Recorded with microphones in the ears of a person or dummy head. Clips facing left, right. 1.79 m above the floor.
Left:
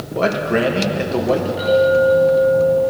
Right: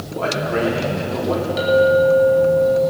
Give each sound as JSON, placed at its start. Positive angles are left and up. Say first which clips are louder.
{"t": 0.1, "sound": "a man speaking", "louder": "left 4 dB", "side_deg": 70, "distance_m": 2.5}
{"t": 1.6, "sound": "a clink", "louder": "right 1 dB", "side_deg": -80, "distance_m": 3.5}